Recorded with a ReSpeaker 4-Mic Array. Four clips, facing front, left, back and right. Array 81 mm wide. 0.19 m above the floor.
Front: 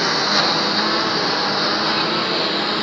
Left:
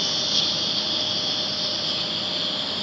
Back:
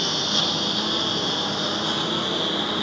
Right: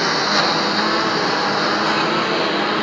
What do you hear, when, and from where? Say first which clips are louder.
0.0 s a lawn mower: right 14 dB, front 8 dB; 55° right; by 2.8 s 70° right